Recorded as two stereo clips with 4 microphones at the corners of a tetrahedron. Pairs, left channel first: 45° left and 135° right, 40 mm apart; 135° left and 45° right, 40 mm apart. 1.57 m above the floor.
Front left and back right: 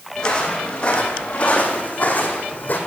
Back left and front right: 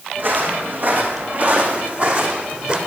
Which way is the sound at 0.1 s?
20° right.